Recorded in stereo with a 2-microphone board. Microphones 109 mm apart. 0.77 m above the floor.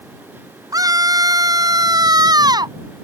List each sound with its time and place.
0.7 s a scream: 30° right (ahead or behind); by 2.8 s 35° right (ahead or behind)